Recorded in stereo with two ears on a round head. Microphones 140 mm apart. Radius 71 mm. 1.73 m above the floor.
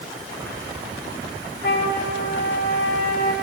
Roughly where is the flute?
Left.